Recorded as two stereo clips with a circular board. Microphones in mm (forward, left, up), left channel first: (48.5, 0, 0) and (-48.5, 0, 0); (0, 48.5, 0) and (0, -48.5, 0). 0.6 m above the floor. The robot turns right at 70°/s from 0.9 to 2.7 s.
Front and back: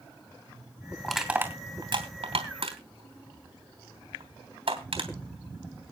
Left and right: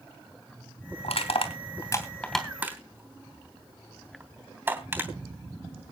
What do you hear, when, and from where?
1.0 s crushing: 85° left, 3 m; by 5.1 s 155° right, 3 m